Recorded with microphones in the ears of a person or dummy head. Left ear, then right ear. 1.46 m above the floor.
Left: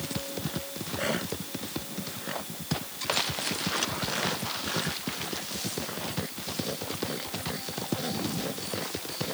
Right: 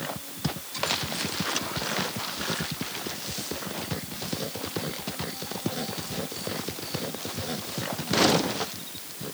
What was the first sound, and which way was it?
Only background noise.